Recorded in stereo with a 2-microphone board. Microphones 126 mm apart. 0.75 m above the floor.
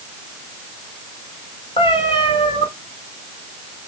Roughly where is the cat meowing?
Left.